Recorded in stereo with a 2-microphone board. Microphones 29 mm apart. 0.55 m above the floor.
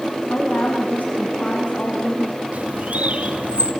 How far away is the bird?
About 2.5 m.